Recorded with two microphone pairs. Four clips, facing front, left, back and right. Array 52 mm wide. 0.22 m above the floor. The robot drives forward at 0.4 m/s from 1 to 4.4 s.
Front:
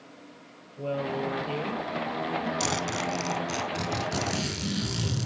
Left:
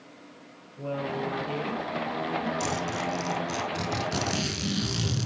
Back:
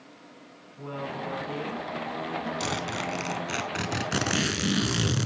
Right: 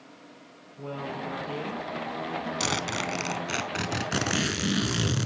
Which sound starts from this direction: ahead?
A woman speaking, at 0.8 s.